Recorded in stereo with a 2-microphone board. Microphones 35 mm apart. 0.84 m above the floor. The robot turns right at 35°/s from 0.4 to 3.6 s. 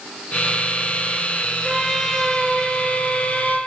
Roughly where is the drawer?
I don't hear a drawer.